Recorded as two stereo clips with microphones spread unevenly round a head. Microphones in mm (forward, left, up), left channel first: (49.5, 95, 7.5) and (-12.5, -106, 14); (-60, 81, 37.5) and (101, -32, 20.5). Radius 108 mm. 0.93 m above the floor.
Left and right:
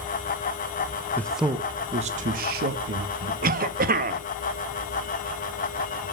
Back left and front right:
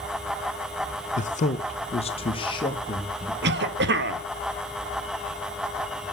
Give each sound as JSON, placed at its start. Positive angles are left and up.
{"t": 1.2, "sound": "a man speaking", "azimuth_deg": 145, "distance_m": 0.8}
{"t": 3.4, "sound": "a cough", "azimuth_deg": -60, "distance_m": 1.6}